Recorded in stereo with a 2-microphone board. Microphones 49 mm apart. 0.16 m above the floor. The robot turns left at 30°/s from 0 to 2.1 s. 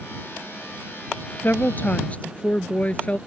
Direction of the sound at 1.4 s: 45° left (ahead or behind).